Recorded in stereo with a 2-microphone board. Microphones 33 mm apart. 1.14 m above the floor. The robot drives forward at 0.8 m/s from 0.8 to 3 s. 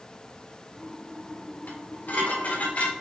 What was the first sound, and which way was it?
Dishes clattering, 60° left (ahead or behind).